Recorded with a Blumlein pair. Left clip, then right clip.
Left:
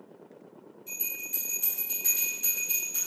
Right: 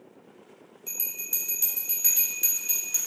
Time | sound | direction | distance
0.9 | a bell | 40° right | 1.0 m